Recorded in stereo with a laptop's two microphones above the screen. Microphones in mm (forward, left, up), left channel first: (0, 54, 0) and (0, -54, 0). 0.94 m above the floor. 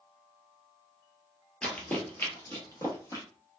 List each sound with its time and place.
1.6 s running footsteps: 10° left (ahead or behind), 0.9 m; by 3.2 s 30° left (ahead or behind), 1.2 m